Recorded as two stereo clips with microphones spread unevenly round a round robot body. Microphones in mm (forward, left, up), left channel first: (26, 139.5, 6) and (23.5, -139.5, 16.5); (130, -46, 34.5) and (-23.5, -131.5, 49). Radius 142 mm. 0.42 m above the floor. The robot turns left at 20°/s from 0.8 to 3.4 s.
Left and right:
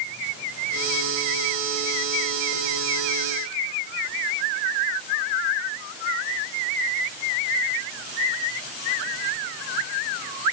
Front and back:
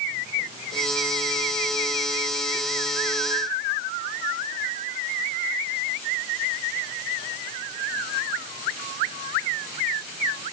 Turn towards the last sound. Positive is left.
No sound to turn to.